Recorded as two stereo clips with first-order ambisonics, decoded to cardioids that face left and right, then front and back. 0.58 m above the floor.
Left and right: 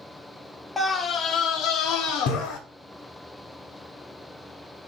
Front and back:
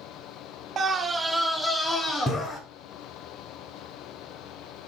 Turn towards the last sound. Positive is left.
turn(degrees=65)